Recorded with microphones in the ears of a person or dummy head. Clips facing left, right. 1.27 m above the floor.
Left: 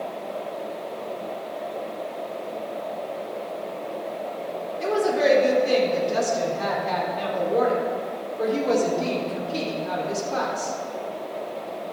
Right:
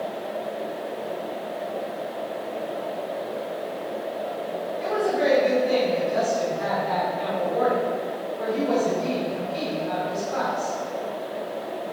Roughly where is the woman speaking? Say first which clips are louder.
Left 2 dB; left.